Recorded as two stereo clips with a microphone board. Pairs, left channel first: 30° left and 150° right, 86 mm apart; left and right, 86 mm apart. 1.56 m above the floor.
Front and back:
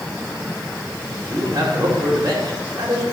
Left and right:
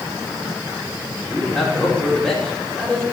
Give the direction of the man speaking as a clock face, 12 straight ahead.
6 o'clock.